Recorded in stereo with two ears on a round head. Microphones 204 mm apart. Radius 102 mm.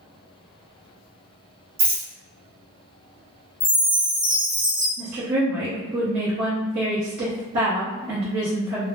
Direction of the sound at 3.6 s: 25° left (ahead or behind).